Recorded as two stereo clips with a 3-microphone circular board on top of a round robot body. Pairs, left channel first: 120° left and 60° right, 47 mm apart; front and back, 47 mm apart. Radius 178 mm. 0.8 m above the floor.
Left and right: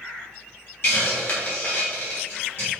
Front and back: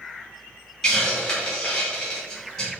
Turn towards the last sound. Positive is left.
turn(degrees=80)